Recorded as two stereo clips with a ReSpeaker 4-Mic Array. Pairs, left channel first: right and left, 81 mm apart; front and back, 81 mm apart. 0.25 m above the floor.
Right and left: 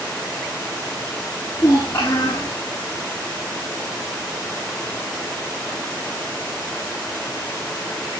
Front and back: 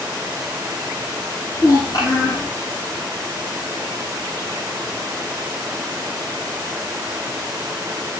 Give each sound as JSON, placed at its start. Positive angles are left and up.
{"t": 1.6, "sound": "a child speaking", "azimuth_deg": -35, "distance_m": 7.0}